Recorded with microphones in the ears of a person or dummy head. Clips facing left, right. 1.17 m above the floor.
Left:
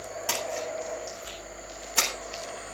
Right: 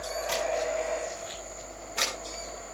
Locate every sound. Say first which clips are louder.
0.3 s a splash: right 4 dB; 65° left (ahead or behind), 8.5 m